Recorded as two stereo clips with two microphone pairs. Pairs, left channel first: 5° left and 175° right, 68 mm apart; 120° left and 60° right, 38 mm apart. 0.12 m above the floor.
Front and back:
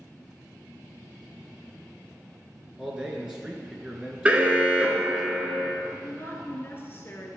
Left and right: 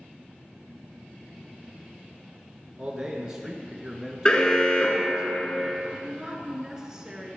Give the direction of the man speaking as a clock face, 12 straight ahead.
4 o'clock.